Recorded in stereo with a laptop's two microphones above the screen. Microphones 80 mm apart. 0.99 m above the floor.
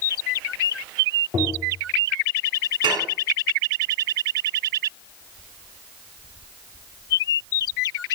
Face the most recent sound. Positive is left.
turn(degrees=-70)  # may be behind; listen again after turning